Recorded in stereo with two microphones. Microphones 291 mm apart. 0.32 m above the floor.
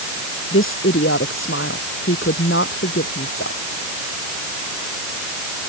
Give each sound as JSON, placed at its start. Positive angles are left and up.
{"t": 0.5, "sound": "a woman speaking", "side_deg": 45}